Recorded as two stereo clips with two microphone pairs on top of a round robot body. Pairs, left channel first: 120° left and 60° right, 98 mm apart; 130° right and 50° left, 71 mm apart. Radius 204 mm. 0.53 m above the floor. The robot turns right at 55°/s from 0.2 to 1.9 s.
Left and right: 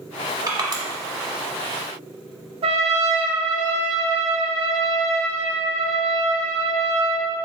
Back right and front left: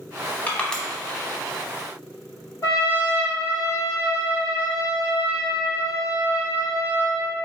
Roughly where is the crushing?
Right.